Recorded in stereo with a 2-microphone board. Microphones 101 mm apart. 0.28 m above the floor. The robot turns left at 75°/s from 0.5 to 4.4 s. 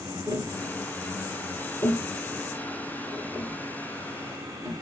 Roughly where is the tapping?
Right.